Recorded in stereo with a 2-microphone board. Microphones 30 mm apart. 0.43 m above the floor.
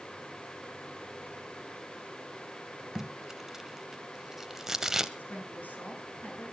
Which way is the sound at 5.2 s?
60° left (ahead or behind).